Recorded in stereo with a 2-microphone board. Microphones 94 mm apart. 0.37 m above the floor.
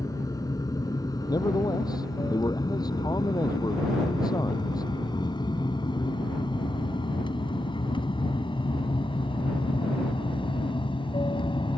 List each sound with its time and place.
0.0 s an aircraft: 40° left (ahead or behind); by 11.8 s 60° left (ahead or behind)
1.3 s a man speaking: 45° left (ahead or behind)